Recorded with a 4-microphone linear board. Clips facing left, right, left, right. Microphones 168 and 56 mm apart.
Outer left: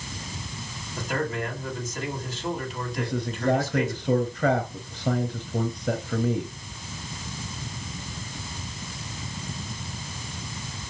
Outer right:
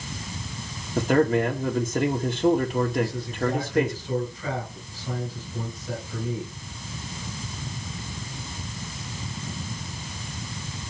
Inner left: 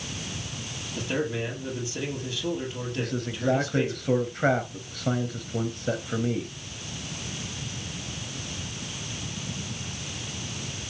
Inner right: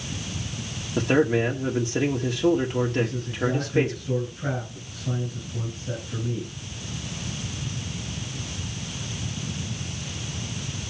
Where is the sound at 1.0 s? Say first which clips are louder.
Outer right 9 dB, inner right 8 dB; 60° right (ahead or behind), 1.8 m.